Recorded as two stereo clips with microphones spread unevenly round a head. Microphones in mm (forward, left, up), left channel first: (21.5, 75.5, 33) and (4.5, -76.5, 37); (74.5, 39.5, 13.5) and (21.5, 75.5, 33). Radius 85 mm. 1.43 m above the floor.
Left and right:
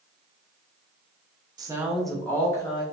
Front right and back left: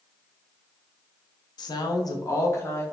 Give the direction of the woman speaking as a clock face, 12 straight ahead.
1 o'clock.